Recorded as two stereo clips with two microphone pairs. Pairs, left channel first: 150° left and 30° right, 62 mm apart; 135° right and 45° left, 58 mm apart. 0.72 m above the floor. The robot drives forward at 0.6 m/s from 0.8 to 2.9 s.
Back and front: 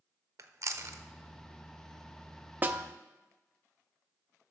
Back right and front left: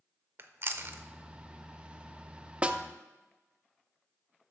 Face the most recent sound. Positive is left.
turn(degrees=-5)